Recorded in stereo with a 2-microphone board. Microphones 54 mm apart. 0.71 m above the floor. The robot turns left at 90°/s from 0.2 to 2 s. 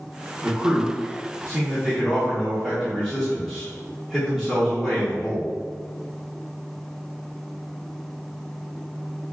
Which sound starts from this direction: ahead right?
A man speaking, at 0.4 s.